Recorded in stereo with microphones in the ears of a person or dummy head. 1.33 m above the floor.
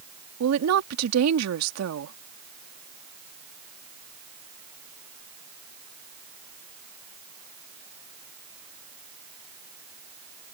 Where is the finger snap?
No finger snap in this recording.